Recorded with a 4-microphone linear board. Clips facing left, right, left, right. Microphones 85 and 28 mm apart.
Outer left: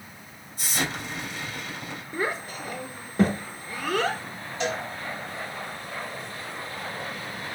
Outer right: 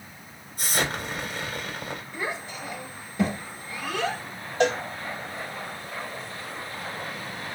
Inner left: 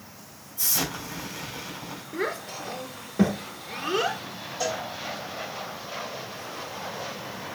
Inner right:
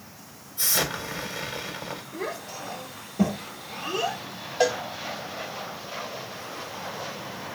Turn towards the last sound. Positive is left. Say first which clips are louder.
# outer right 6 dB, inner right 6 dB
turn(degrees=-60)  # may be behind; listen again after turning